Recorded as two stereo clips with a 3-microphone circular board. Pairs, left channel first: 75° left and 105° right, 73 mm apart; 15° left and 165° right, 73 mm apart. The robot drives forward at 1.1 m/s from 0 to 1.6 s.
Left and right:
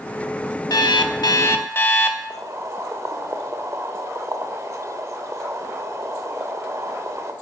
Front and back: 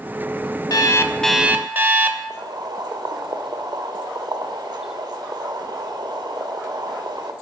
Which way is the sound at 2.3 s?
150° right.